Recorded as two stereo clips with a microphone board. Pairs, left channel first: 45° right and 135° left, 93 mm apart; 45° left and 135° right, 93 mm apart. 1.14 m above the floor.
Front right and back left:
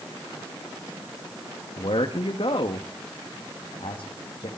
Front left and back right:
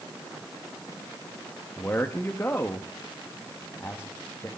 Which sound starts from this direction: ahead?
A man speaking, at 1.8 s.